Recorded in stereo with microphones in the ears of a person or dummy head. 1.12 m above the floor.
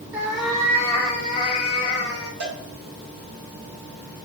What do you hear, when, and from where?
0.1 s a cat meowing: 10° right (ahead or behind), 0.6 m; by 2.3 s 30° left (ahead or behind), 1.9 m
2.4 s a cowbell: 60° right (ahead or behind), 1.6 m